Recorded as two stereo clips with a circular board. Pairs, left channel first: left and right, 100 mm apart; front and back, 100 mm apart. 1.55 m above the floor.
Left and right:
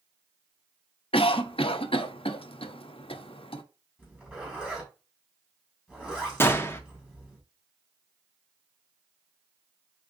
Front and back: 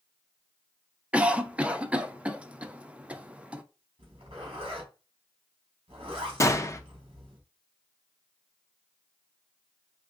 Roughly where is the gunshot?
Ahead left.